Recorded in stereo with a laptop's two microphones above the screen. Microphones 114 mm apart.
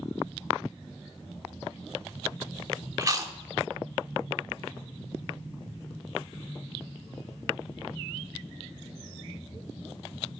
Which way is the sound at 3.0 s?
30° right (ahead or behind).